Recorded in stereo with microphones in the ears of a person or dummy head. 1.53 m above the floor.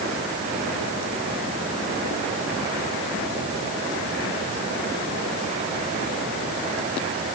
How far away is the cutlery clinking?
I don't hear cutlery clinking.